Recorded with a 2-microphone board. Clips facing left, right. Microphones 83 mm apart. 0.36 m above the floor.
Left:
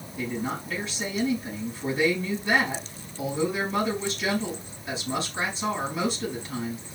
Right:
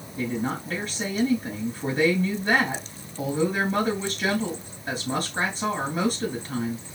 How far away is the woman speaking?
About 4 m.